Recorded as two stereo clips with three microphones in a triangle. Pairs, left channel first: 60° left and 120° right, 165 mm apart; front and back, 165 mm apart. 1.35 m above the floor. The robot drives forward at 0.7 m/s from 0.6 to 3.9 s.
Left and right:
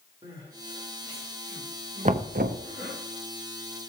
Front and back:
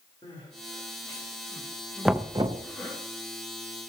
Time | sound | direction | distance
0.2 | crying | 65° right | 3 m
2.0 | knocking | 90° right | 0.5 m